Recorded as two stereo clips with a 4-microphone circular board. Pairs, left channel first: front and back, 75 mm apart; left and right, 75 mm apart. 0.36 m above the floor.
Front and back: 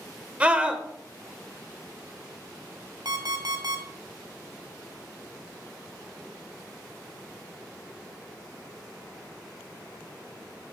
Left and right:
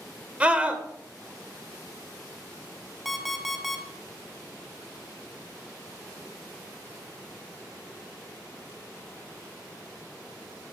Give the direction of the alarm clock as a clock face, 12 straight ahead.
6 o'clock.